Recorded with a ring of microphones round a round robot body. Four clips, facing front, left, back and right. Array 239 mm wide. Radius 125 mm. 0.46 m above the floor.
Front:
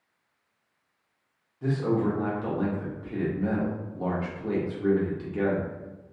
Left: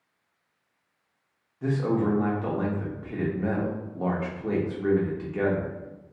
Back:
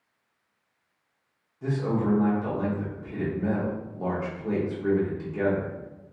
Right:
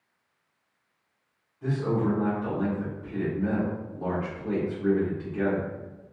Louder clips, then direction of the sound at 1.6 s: Left 2 dB, front 1 dB; 75° left.